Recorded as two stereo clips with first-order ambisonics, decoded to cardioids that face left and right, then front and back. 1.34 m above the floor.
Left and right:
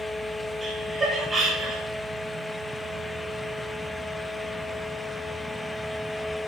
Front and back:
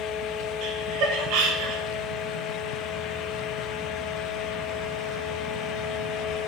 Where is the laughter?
165° right, 1.9 m.